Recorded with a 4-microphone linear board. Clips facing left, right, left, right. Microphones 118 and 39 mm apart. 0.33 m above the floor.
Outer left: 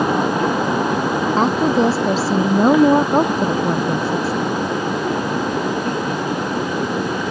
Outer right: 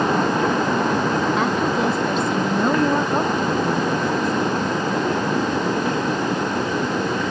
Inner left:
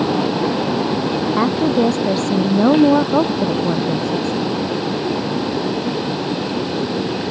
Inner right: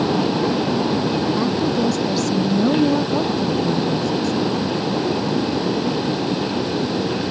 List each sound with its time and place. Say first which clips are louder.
1.4 s a woman speaking: outer left 4 dB, inner left 4 dB; 30° left (ahead or behind)